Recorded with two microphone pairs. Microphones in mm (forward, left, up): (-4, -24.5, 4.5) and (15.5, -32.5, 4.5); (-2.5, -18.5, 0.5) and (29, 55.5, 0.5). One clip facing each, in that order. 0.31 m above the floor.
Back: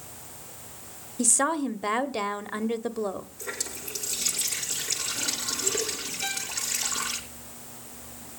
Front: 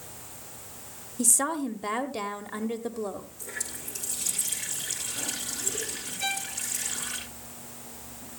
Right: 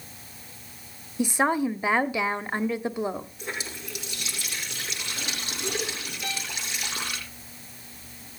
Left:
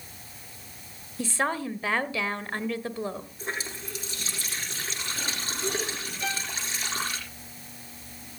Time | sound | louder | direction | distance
1.2 | a woman speaking | back 2 dB, right 5 dB | 160° right | 0.9 m
3.4 | a running tap | back 3 dB, left 1 dB | 115° left | 10 m
6.2 | a violin | front 3 dB, left 3 dB | 65° left | 4.5 m